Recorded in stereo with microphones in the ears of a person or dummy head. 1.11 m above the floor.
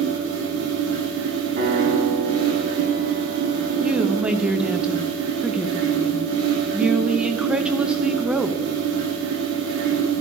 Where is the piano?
60° right (ahead or behind), 2.5 m.